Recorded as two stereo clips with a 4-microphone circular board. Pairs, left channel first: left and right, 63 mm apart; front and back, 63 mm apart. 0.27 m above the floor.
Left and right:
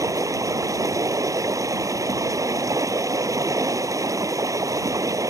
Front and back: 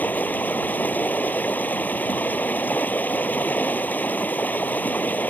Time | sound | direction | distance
0.0 | running water | 60° right | ?